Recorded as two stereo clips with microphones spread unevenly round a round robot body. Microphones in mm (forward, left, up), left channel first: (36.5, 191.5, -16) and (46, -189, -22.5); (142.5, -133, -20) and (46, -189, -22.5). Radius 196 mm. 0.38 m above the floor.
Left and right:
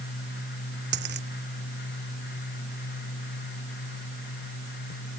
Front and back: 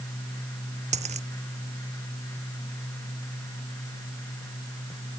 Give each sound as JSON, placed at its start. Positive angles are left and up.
{"t": 0.9, "sound": "a dropped coin", "azimuth_deg": -155}